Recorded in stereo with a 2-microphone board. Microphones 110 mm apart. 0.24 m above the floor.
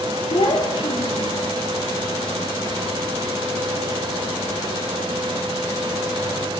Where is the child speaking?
50° left (ahead or behind), 4 m.